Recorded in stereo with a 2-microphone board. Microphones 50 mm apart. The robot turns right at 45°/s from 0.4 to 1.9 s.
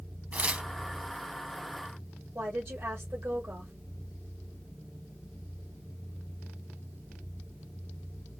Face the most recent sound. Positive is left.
turn(degrees=-60)  # may be behind; listen again after turning